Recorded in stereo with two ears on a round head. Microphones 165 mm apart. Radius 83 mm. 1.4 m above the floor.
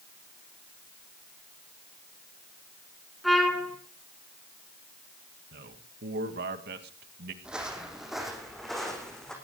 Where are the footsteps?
5° right (ahead or behind), 3 m; by 9.3 s centre (ahead or behind), 4.5 m.